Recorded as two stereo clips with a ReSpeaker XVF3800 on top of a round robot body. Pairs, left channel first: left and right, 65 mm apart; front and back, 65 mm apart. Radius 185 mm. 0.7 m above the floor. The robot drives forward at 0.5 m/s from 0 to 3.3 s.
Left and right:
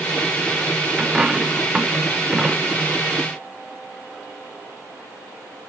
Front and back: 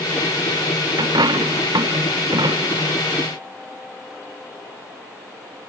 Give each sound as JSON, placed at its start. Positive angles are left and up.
{"t": 1.0, "sound": "a dropped coin", "azimuth_deg": -170}